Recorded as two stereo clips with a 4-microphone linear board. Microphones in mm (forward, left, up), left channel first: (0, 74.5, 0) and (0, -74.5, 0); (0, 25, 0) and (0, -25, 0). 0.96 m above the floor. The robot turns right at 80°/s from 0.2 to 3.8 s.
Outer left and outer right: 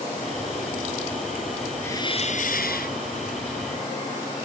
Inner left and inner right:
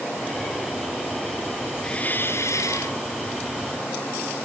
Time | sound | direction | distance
1.8 | a hiss | 15° left | ?